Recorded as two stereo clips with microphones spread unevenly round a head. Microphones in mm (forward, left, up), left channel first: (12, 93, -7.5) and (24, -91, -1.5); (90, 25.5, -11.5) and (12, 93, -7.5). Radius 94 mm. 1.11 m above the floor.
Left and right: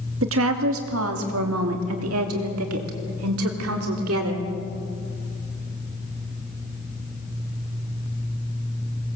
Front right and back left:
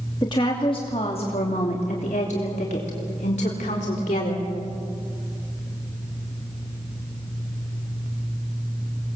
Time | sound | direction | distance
0.2 | a woman speaking | 110° right | 2 m